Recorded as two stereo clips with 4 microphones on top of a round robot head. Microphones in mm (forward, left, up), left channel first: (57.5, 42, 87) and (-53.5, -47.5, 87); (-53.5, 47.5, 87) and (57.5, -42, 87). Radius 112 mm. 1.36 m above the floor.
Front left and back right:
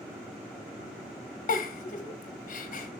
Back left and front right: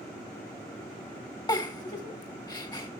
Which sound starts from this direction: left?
A giggle, at 1.5 s.